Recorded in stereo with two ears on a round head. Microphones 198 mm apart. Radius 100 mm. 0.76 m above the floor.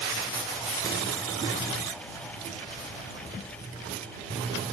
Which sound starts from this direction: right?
A buzzer, at 0.7 s.